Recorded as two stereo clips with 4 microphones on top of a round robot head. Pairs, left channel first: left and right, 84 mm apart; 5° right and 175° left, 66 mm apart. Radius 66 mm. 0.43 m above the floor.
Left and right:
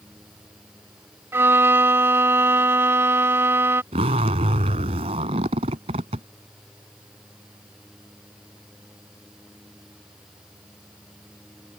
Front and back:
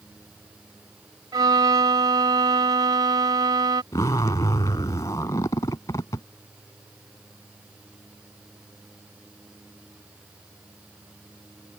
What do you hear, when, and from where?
1.3 s a violin: 155° right
3.9 s a zipper: 65° right